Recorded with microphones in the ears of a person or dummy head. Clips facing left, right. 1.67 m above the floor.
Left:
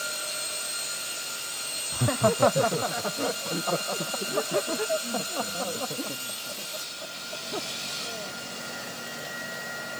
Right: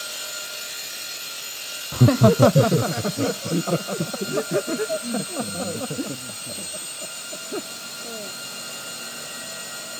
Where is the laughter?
60° right (ahead or behind); by 8.4 s 35° right (ahead or behind).